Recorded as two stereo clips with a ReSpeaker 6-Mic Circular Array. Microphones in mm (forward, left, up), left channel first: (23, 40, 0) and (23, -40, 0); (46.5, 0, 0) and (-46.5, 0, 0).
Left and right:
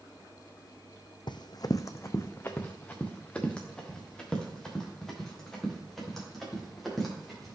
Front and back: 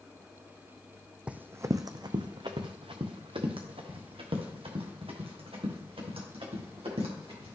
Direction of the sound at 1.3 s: 105° left.